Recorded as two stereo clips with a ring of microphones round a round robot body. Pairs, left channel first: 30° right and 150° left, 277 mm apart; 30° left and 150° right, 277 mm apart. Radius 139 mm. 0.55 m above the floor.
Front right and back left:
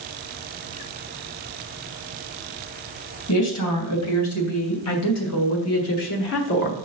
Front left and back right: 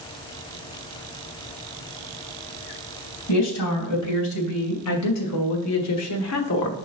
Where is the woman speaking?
Straight ahead, 3.5 m; by 6.9 s 15° left, 1.2 m.